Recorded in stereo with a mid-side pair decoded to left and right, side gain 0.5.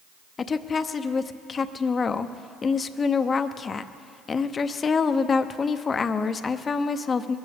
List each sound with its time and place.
0.4 s a woman speaking: 40° left, 0.7 m